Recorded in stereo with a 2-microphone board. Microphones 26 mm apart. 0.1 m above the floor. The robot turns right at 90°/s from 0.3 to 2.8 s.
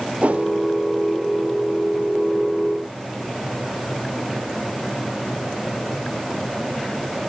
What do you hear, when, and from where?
0.2 s a whoosh: 65° right (ahead or behind); by 0.5 s 80° right